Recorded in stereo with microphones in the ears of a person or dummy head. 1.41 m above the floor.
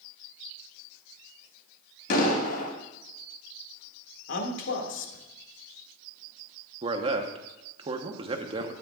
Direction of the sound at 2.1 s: 60° left (ahead or behind).